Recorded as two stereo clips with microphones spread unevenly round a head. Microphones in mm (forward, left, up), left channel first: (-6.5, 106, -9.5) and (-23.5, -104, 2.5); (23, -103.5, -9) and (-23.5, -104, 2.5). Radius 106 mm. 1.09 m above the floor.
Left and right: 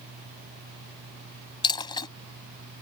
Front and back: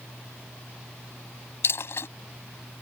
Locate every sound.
0.0 s a fan: 115° right
1.6 s a dropped coin: 20° left